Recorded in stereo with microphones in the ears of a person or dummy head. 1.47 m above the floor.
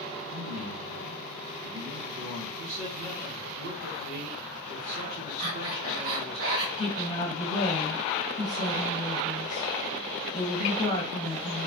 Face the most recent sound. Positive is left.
turn(degrees=35)  # may be behind; listen again after turning